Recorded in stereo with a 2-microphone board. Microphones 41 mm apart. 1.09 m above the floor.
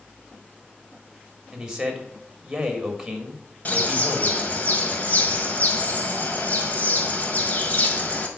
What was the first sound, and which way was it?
A man speaking, 15° right (ahead or behind).